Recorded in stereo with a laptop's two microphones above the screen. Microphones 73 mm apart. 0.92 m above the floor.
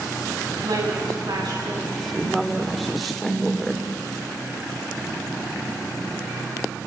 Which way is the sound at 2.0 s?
Centre (ahead or behind).